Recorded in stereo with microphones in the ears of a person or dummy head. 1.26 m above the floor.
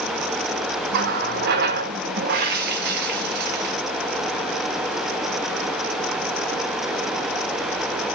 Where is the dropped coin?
I don't hear a dropped coin.